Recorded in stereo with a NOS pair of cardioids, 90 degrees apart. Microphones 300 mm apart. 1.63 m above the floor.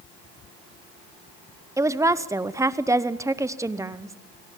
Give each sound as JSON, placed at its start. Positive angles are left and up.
{"t": 1.8, "sound": "a woman speaking", "azimuth_deg": -10, "distance_m": 0.9}